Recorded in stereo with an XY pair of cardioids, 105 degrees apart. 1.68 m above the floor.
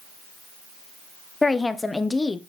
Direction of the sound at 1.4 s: 20° left.